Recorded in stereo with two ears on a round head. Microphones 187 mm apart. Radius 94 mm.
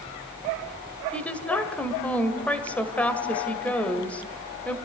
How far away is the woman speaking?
About 1.9 m.